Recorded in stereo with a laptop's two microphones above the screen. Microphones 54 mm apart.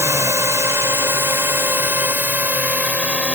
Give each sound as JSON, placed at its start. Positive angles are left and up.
{"t": 0.0, "sound": "a drone", "side_deg": -65}